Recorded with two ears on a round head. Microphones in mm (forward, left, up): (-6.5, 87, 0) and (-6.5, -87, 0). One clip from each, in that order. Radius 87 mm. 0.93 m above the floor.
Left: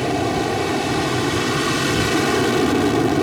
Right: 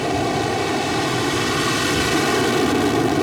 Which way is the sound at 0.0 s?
10° right (ahead or behind).